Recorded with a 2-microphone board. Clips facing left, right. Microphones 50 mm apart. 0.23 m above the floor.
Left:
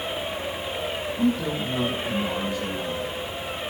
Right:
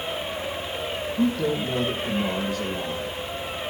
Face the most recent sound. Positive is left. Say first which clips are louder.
# right 1 dB
turn(degrees=-55)  # may be behind; listen again after turning